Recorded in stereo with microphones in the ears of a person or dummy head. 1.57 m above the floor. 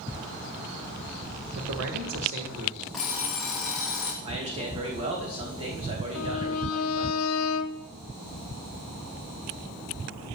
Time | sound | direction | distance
1.6 | a man speaking | 75° right (ahead or behind) | 1.9 m
2.9 | an alarm clock | centre (ahead or behind) | 0.7 m
4.2 | a man speaking | 30° right (ahead or behind) | 2.5 m
6.2 | a violin | 80° left | 0.5 m